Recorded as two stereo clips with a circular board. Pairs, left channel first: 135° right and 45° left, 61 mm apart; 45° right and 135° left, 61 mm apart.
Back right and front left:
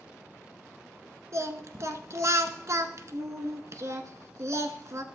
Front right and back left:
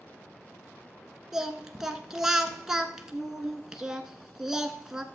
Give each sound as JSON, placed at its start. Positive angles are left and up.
{"t": 1.3, "sound": "singing", "azimuth_deg": 55, "distance_m": 0.8}